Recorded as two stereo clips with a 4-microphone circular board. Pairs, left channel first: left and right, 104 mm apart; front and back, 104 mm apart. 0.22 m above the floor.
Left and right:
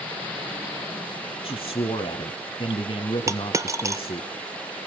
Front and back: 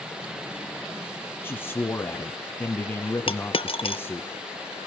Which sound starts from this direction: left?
A man speaking, at 1.4 s.